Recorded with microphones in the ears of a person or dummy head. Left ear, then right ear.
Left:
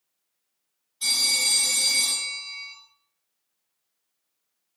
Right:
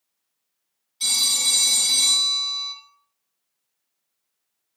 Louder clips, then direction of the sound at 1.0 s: Right 2 dB; 65° right (ahead or behind).